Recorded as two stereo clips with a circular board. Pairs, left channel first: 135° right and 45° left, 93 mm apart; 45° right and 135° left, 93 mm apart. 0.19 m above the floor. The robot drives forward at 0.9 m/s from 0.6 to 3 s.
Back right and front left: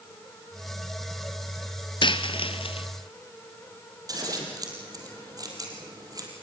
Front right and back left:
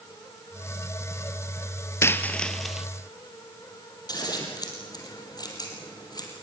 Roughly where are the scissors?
Ahead.